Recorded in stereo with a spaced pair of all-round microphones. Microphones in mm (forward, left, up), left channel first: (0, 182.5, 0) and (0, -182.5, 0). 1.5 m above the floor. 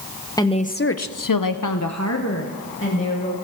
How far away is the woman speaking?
About 1.0 m.